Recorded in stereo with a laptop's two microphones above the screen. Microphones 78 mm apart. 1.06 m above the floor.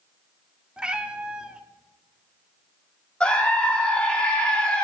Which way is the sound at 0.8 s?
10° right (ahead or behind).